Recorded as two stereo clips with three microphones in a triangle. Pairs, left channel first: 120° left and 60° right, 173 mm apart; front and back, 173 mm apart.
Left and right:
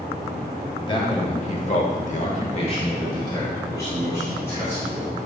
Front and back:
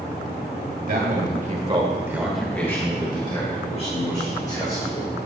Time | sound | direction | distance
0.9 | a man speaking | 175° left | 1.7 m